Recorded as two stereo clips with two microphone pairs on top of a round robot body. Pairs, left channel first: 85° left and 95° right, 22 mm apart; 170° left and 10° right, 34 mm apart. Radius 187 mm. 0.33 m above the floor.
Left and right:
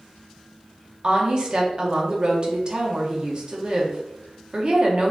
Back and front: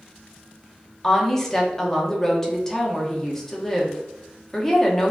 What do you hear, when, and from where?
1.0 s a woman speaking: 125° right, 1.1 m